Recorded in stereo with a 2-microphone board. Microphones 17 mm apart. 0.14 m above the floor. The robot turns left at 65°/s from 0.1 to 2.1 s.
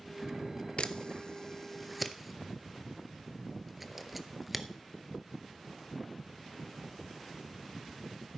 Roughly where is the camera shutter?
Left.